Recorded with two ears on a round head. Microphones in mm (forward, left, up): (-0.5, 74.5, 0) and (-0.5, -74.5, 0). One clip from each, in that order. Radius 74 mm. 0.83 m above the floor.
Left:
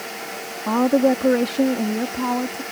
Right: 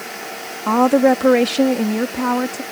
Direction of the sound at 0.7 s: 30° right (ahead or behind).